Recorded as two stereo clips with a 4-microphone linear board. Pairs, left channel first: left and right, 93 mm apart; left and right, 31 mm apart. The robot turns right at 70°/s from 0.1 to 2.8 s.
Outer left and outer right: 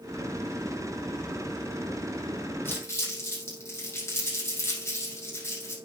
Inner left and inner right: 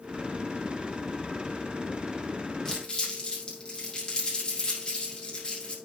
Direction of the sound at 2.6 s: 20° left (ahead or behind).